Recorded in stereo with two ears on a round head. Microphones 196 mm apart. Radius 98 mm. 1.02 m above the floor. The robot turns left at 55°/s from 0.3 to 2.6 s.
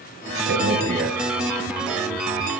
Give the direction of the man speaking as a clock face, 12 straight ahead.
4 o'clock.